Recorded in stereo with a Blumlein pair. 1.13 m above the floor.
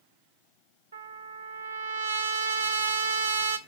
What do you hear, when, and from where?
0.9 s a trumpet: 70° right, 1.1 m